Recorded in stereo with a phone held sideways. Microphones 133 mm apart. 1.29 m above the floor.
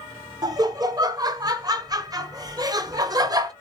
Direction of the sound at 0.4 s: 30° right (ahead or behind).